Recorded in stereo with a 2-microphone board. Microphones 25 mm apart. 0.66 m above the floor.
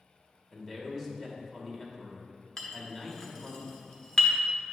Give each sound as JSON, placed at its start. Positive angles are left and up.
{"t": 0.5, "sound": "a man speaking", "side_deg": 15, "distance_m": 1.4}
{"t": 2.6, "sound": "a clink", "side_deg": 25, "distance_m": 1.1}